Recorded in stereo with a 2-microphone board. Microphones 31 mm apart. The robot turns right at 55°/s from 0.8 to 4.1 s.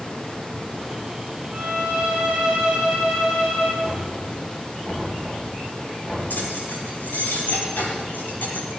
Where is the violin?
90° right, 9 m; by 3.7 s 35° left, 9 m.